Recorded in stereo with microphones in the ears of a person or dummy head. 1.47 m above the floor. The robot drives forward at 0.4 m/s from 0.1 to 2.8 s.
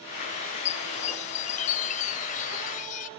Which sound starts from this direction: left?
A chime, at 0.4 s.